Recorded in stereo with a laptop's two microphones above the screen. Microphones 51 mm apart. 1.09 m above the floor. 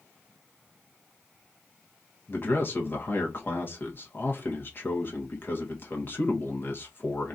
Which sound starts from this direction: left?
A man speaking, at 2.3 s.